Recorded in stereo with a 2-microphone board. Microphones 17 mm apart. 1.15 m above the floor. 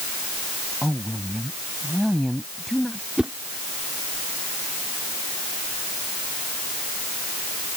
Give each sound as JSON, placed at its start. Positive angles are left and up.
{"t": 0.8, "sound": "a woman speaking", "side_deg": 5}
{"t": 3.2, "sound": "a whoosh", "side_deg": -65}